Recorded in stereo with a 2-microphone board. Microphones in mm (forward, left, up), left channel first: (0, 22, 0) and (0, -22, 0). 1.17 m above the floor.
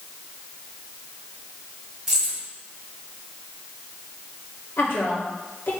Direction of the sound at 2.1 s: 10° right (ahead or behind).